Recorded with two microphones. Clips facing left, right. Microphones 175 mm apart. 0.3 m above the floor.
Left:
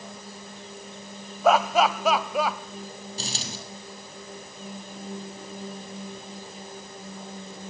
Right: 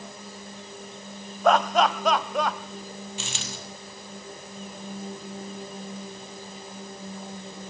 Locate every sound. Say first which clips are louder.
1.4 s laughter: even; 5° left (ahead or behind), 1.4 m
3.2 s a dropped coin: left 2 dB; 35° left (ahead or behind), 3.5 m